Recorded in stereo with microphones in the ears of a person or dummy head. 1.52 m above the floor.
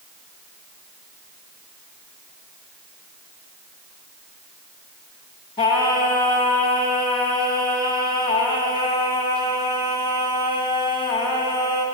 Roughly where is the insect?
No insect in this recording.